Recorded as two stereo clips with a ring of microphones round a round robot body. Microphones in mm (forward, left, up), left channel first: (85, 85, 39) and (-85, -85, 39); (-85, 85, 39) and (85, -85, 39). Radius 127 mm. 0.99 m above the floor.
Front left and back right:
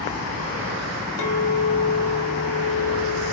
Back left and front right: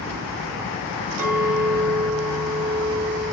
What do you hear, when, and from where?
1.2 s a clink: 35° left, 1.0 m